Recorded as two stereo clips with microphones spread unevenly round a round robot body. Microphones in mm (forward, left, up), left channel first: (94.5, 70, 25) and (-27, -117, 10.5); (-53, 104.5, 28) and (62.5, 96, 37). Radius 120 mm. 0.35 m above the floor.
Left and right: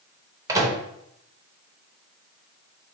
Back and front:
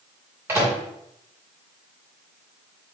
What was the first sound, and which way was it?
A microwave, 65° right.